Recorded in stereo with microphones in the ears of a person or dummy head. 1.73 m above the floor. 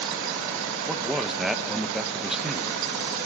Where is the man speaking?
5° right (ahead or behind), 1.8 m.